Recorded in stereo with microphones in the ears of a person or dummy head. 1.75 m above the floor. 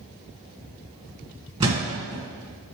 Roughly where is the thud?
Right.